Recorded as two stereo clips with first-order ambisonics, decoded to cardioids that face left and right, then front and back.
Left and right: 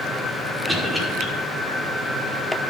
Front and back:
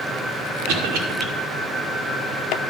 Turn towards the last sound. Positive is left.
turn(degrees=-170)